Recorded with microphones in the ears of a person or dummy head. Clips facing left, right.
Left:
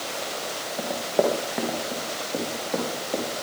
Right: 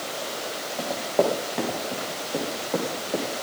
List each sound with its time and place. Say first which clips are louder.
0.8 s running footsteps: even; 5° left (ahead or behind), 4 m; by 3.2 s centre (ahead or behind), 7.5 m